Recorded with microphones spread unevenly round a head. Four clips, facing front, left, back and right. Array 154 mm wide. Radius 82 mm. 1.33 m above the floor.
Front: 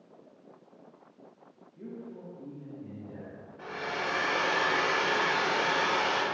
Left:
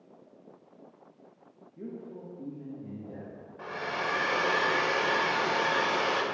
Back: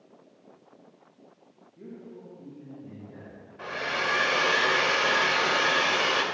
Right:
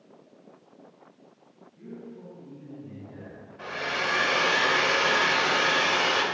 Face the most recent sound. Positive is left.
turn(degrees=-175)